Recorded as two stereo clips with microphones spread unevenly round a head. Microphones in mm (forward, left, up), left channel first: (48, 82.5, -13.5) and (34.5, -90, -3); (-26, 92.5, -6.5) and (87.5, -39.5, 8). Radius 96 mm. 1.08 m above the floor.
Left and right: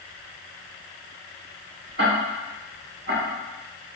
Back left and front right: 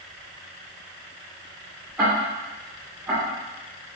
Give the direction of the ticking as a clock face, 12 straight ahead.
4 o'clock.